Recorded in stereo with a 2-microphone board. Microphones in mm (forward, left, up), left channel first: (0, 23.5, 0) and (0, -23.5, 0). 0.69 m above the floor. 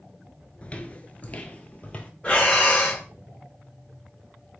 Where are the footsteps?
25° left (ahead or behind), 0.7 m; by 2.1 s 30° left (ahead or behind), 1.2 m.